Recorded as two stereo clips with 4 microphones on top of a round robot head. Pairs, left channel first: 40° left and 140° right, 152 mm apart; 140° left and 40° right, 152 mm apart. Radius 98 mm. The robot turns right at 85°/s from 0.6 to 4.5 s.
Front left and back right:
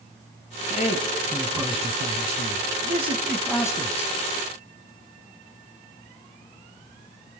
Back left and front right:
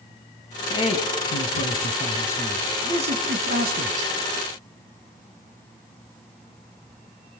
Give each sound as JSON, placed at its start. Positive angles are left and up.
{"t": 0.7, "sound": "a man speaking", "azimuth_deg": 75, "distance_m": 6.0}